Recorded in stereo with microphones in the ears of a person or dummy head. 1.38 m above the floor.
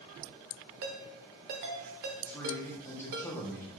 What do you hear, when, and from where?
0.8 s a ringtone: 55° right (ahead or behind), 0.7 m
2.2 s a man speaking: 10° left (ahead or behind), 0.7 m